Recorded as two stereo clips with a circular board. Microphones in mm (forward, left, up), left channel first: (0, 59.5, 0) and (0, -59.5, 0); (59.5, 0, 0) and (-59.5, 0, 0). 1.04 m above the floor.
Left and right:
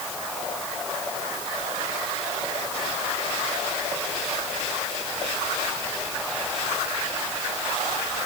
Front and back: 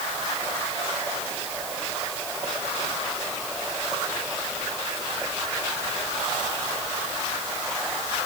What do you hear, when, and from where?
Only background noise.